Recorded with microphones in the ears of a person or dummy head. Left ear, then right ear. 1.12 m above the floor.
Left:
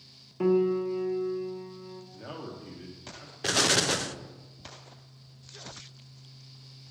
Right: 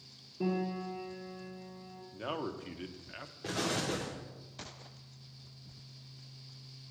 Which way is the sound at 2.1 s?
45° right (ahead or behind).